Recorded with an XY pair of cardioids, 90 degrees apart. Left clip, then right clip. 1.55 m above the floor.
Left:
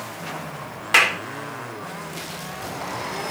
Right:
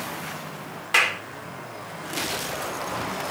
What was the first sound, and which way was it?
A clap, 40° left.